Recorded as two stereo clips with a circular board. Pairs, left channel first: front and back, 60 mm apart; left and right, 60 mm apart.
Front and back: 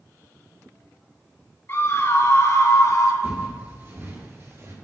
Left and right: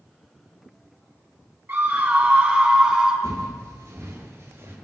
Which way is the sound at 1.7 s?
45° right.